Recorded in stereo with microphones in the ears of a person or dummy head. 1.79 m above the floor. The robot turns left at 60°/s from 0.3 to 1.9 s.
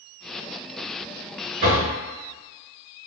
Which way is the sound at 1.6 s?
35° right (ahead or behind).